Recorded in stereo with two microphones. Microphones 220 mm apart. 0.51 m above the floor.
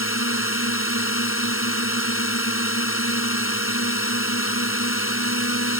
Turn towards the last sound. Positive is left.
turn(degrees=75)  # may be behind; listen again after turning